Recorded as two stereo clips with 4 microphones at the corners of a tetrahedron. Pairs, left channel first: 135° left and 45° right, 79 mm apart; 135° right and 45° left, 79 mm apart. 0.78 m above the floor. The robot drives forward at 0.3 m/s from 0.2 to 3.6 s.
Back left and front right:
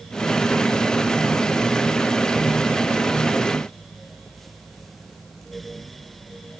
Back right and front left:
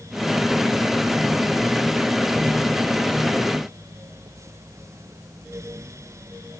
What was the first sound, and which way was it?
Only background noise.